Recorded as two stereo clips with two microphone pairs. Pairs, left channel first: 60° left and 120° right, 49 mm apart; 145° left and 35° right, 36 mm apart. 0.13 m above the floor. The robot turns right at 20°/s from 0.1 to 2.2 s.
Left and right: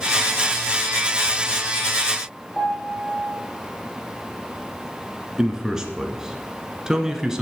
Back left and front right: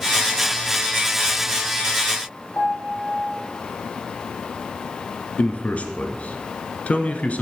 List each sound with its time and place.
2.5 s a piano: 135° left, 3.5 m
5.4 s a man speaking: 165° left, 1.5 m